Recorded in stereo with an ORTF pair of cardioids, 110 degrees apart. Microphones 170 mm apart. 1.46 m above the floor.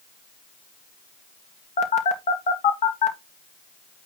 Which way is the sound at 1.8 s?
45° left.